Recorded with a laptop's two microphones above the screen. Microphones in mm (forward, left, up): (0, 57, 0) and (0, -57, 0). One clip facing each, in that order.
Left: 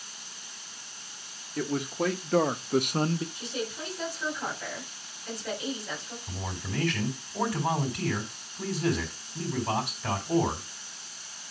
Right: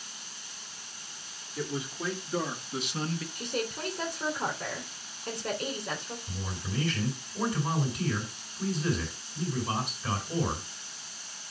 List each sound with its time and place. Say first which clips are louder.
1.6 s a man speaking: left 6 dB; 65° left (ahead or behind), 1.6 m; by 3.2 s 25° left (ahead or behind), 0.5 m
3.4 s a woman speaking: right 1 dB; 55° right (ahead or behind), 3 m
6.3 s a man speaking: left 4 dB; 70° left (ahead or behind), 3.5 m